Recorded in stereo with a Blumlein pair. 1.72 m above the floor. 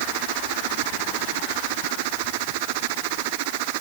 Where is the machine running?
50° right.